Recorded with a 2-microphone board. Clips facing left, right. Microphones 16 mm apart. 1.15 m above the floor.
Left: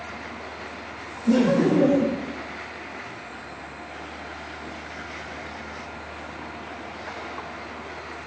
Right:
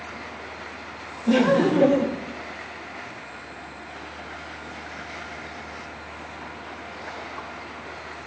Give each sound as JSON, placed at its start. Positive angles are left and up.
{"t": 1.3, "sound": "laughter", "side_deg": -35, "distance_m": 1.0}